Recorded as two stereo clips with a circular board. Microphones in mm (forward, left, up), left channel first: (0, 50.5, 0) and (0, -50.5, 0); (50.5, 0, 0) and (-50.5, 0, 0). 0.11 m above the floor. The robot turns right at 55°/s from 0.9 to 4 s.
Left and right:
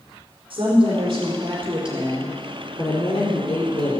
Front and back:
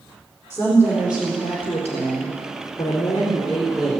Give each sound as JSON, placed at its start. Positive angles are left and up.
{"t": 0.5, "sound": "a woman speaking", "azimuth_deg": -60, "distance_m": 4.5}